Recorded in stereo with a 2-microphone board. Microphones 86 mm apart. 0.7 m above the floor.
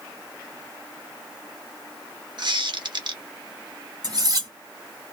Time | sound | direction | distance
2.4 | a squeak | 60° right (ahead or behind) | 0.7 m
4.0 | cutlery clinking | 50° right (ahead or behind) | 1.3 m